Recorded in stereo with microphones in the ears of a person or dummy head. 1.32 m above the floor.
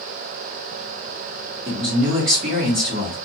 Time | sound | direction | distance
1.6 | a man speaking | 40° right (ahead or behind) | 1.4 m